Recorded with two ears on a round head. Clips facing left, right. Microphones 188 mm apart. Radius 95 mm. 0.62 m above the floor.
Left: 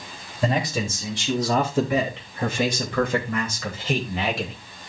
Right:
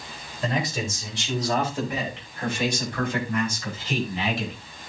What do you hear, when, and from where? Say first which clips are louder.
0.4 s a man speaking: left 3 dB; 70° left (ahead or behind), 3.5 m; by 4.5 s 40° left (ahead or behind), 3 m